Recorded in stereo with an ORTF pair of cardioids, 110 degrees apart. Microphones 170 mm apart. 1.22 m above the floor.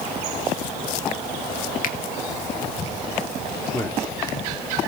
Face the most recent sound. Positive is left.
turn(degrees=20)